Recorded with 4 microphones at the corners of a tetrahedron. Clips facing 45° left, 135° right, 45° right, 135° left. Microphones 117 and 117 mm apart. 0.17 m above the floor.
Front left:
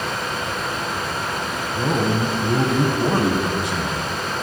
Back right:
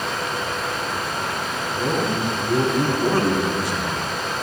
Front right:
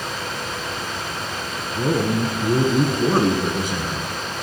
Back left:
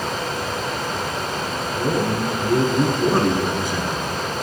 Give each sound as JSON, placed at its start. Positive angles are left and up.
{"t": 1.7, "sound": "a man speaking", "azimuth_deg": 0, "distance_m": 1.4}